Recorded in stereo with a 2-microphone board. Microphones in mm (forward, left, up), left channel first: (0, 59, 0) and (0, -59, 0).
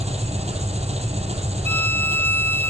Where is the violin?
20° left (ahead or behind), 0.9 m.